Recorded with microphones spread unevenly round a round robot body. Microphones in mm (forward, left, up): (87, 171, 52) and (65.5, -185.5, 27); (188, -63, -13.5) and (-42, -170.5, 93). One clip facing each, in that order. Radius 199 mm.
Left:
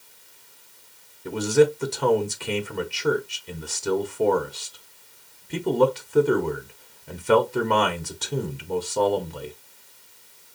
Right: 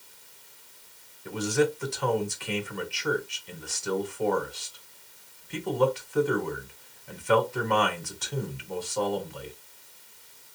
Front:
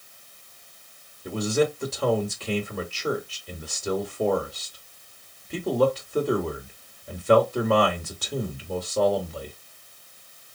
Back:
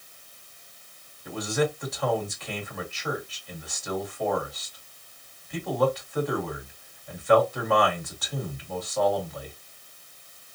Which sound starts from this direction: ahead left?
A man speaking, at 1.2 s.